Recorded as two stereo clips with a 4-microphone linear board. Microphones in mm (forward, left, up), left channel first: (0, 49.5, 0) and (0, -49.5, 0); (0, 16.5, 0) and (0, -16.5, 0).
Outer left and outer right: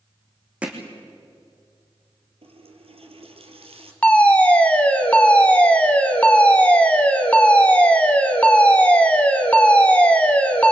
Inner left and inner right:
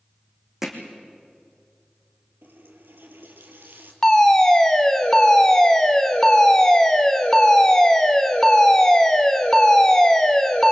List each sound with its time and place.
0.6 s hammering: 10° right (ahead or behind), 3.5 m
2.4 s a running tap: 75° right (ahead or behind), 3 m
4.0 s a fire alarm: 15° left (ahead or behind), 2 m